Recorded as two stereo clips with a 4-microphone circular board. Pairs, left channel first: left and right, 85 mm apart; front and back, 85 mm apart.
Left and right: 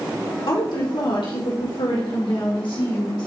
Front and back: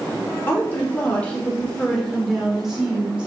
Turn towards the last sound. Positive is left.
turn(degrees=105)